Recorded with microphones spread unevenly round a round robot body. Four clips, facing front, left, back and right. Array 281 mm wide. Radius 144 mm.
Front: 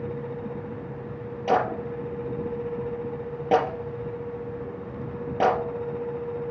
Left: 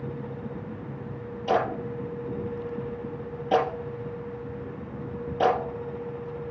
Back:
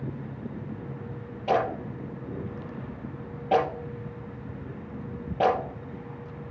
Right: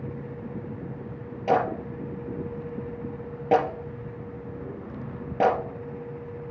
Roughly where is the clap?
Ahead right.